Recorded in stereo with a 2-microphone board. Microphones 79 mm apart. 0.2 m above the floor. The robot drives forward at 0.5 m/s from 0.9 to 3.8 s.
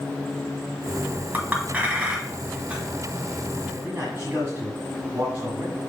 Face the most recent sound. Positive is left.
turn(degrees=-25)  # may be behind; listen again after turning